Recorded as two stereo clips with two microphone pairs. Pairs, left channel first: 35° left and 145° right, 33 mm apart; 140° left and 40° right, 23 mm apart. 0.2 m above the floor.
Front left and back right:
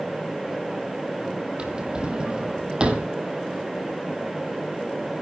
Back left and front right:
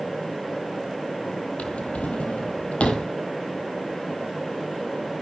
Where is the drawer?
155° left, 1.5 m.